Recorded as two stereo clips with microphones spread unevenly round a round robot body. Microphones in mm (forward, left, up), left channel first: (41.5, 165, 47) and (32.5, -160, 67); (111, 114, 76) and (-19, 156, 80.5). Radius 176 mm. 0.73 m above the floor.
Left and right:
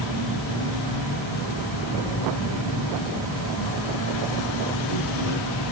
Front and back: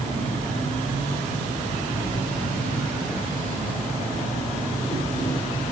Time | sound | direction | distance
0.0 | an insect | 55° right | 2.5 m